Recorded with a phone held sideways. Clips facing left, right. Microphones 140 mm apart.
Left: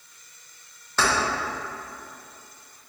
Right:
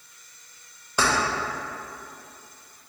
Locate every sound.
1.0 s keys jangling: 15° right (ahead or behind), 0.7 m